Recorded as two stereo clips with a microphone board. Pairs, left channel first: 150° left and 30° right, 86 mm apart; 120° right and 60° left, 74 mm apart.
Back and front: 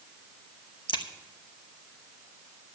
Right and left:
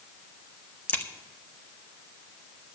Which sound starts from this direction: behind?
A crack, at 0.9 s.